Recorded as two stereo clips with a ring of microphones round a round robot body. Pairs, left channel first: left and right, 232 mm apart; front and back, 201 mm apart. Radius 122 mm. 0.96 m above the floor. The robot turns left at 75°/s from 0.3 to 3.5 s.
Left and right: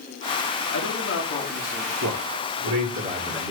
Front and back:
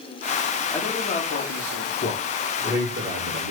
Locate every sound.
0.7 s a man speaking: 85° left, 2.5 m; by 1.9 s 5° right, 2.5 m
2.0 s a man speaking: 55° right, 2.5 m; by 3.5 s 165° right, 2.5 m